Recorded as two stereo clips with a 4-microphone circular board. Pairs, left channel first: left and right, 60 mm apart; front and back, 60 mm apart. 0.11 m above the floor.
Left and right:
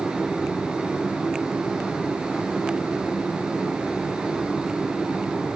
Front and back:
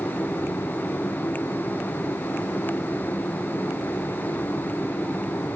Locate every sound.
Only background noise.